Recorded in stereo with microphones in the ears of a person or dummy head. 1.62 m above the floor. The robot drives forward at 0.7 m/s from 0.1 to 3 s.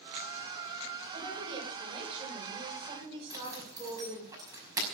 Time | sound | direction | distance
1.1 | a woman speaking | 20° right (ahead or behind) | 8 m
3.3 | a zipper | 25° right (ahead or behind) | 5 m